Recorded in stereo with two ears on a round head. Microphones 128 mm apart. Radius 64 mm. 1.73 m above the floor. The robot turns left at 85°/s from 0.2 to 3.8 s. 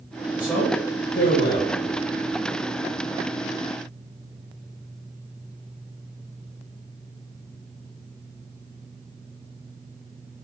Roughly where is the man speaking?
Behind.